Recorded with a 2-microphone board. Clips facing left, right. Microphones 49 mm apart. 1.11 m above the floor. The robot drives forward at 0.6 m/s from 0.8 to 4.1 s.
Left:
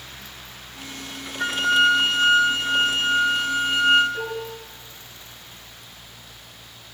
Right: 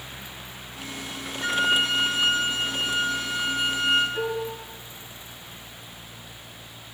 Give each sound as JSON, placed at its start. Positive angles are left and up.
{"t": 1.4, "sound": "a flute", "side_deg": 75, "distance_m": 3.5}
{"t": 4.1, "sound": "dishes clattering", "side_deg": 5, "distance_m": 9.5}